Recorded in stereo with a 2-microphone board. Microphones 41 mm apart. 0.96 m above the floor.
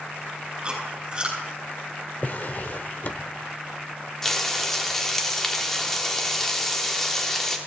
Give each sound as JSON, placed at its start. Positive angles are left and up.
{"t": 0.6, "sound": "chewing", "side_deg": -25, "distance_m": 6.5}
{"t": 2.2, "sound": "a drawer", "side_deg": 45, "distance_m": 0.8}
{"t": 4.2, "sound": "frying", "side_deg": 10, "distance_m": 1.5}